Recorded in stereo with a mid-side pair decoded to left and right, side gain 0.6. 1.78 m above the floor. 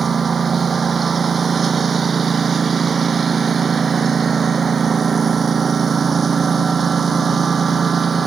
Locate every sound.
0.0 s a lawn mower: 30° right